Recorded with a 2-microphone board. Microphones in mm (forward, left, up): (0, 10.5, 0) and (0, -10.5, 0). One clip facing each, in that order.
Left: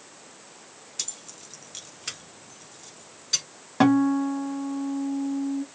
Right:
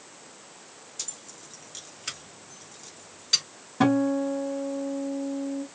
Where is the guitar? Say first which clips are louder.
Left 3 dB; 55° left (ahead or behind), 1.2 m.